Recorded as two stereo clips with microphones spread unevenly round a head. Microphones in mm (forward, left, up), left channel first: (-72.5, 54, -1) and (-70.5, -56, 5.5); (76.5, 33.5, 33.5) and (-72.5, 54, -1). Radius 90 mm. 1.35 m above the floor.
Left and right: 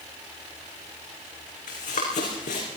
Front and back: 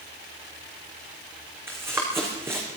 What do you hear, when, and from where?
1.7 s running footsteps: 95° left, 5 m